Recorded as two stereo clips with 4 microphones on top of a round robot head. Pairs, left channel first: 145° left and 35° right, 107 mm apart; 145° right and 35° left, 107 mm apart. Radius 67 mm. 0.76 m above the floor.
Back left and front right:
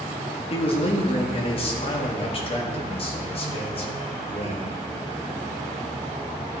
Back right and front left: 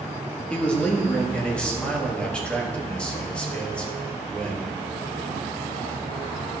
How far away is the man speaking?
About 1.6 m.